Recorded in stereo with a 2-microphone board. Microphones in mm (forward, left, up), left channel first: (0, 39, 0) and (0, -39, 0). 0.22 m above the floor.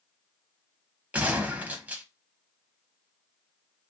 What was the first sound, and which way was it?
A gunshot, 20° right (ahead or behind).